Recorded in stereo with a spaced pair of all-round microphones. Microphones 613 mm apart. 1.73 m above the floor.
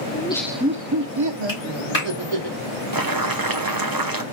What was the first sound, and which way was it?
Laughter, 20° left (ahead or behind).